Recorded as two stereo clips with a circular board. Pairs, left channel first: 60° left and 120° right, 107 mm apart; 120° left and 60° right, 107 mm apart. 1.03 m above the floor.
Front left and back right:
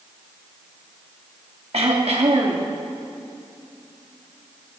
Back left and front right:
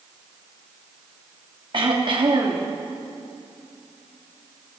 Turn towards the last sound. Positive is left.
turn(degrees=-100)